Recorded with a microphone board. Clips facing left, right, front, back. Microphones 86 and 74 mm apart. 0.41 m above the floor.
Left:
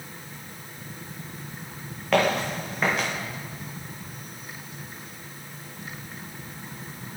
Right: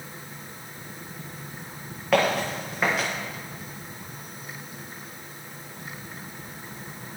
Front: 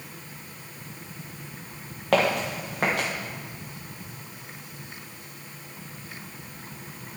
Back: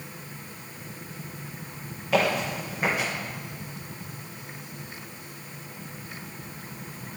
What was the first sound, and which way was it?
Footsteps, straight ahead.